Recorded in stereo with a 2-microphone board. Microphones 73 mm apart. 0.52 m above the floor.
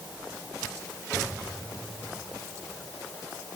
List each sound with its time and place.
Only background noise.